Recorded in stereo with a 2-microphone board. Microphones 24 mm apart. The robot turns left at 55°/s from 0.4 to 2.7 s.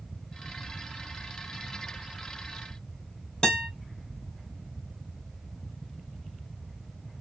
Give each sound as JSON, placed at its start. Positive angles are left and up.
{"t": 3.4, "sound": "a guitar", "side_deg": 40, "distance_m": 2.0}